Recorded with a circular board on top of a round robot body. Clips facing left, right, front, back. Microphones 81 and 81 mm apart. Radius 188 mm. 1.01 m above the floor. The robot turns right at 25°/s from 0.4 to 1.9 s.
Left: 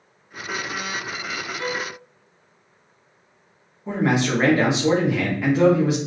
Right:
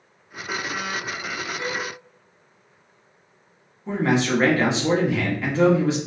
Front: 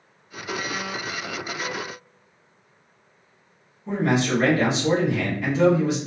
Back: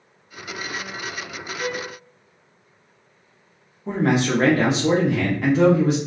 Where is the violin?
85° left, 1.6 m; by 1.9 s 90° left, 1.6 m.